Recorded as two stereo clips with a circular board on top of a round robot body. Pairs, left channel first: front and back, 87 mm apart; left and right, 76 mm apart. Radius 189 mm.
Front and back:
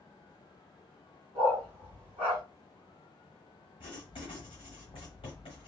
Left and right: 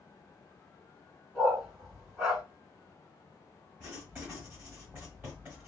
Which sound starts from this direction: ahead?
Writing, at 3.8 s.